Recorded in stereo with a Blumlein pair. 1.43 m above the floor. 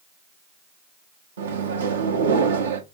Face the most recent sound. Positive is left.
turn(degrees=-65)